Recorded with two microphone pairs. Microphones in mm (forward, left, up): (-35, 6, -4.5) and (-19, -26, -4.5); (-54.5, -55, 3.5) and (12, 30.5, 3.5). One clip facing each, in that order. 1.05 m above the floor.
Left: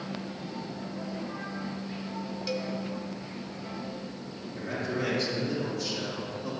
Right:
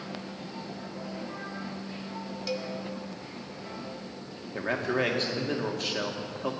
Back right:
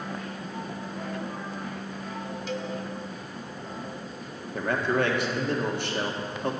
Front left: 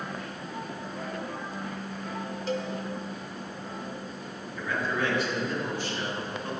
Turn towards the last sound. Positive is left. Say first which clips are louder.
# right 4 dB, back right 5 dB
turn(degrees=-105)